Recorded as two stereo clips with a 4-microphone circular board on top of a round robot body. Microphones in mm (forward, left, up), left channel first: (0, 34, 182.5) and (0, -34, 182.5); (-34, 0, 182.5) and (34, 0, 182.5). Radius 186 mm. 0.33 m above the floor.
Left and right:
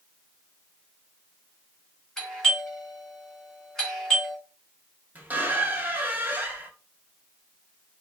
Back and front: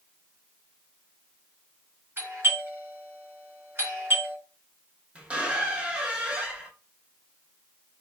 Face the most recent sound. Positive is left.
turn(degrees=-55)